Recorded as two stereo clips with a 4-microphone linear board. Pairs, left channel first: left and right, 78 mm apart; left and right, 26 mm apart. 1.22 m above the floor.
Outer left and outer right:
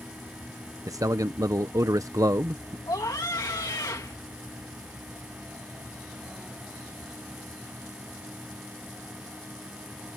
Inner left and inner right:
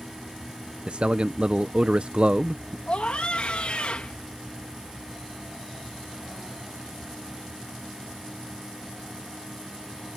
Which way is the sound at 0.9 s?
50° right (ahead or behind).